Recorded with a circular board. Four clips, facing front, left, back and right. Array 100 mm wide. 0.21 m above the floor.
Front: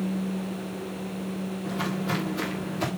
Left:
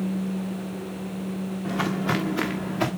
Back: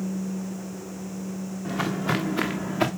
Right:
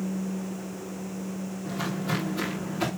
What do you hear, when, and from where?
1.6 s footsteps: 130° left, 1.8 m; by 2.9 s 155° left, 1.7 m